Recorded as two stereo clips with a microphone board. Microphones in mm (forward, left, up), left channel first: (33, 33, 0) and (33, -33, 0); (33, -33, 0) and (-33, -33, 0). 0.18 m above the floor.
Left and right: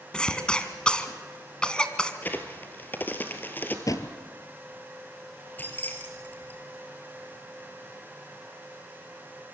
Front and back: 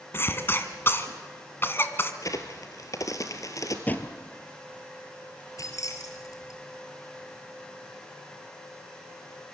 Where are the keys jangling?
30° left, 3 m.